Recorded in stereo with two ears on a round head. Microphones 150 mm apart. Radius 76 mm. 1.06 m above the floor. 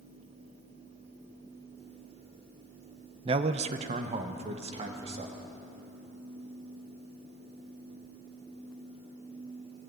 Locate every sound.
3.2 s a man speaking: 30° right (ahead or behind), 0.6 m; by 5.3 s 35° right (ahead or behind), 1.9 m